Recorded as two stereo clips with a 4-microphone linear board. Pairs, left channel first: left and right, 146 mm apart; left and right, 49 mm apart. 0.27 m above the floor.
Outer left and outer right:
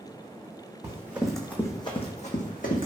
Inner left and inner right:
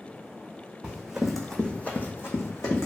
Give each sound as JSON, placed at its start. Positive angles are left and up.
{"t": 0.8, "sound": "running footsteps", "side_deg": -20, "distance_m": 0.9}